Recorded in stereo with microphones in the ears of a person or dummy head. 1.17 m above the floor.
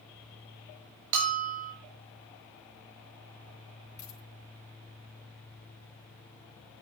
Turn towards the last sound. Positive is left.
turn(degrees=20)  # may be behind; listen again after turning